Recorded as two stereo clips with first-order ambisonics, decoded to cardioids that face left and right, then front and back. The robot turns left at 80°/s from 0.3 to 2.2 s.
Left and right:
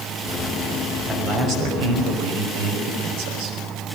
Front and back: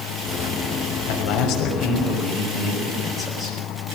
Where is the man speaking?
5° right, 6 m; by 3.6 s 95° right, 6 m.